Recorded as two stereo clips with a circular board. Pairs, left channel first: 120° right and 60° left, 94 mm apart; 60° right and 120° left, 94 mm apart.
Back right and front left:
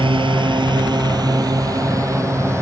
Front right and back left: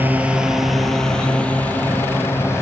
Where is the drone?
50° left; by 2.6 s straight ahead.